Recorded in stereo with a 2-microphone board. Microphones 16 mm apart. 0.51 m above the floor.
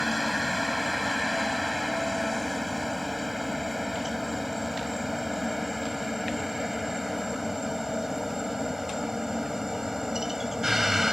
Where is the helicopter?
10° right (ahead or behind); by 11.1 s 30° right (ahead or behind).